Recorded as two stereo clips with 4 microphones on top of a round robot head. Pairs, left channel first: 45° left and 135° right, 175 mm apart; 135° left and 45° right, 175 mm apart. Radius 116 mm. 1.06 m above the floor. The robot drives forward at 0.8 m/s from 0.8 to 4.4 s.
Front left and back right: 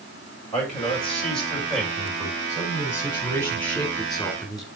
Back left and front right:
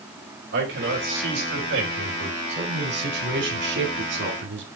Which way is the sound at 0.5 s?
35° right.